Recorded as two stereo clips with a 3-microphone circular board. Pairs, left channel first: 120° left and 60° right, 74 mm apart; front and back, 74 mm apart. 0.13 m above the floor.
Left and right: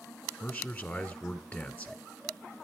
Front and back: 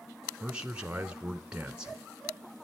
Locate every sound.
0.4 s a man speaking: 125° left, 1.1 m